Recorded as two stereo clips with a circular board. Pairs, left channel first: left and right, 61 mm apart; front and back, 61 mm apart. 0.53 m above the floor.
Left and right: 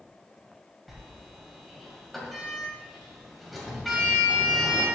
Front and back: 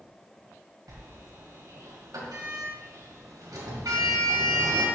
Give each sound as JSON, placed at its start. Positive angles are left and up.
{"t": 0.9, "sound": "a sliding door", "azimuth_deg": 180, "distance_m": 2.0}